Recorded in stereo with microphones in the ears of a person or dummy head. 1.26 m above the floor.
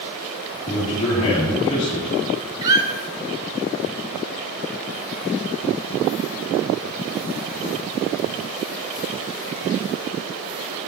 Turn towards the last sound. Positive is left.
turn(degrees=-20)  # may be behind; listen again after turning